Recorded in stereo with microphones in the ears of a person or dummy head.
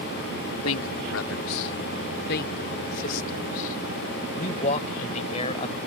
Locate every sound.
0.6 s a man speaking: 75° left (ahead or behind); by 5.8 s 30° left (ahead or behind)